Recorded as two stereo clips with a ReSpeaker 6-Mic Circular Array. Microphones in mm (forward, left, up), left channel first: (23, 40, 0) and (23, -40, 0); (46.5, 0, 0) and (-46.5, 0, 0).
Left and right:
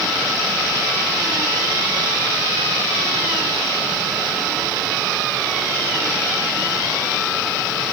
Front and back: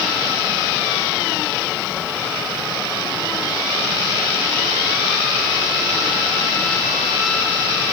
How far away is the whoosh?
No whoosh in this recording.